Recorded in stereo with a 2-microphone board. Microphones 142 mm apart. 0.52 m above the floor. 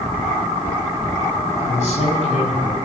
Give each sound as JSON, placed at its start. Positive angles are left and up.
{"t": 1.6, "sound": "a man speaking", "side_deg": 60, "distance_m": 4.0}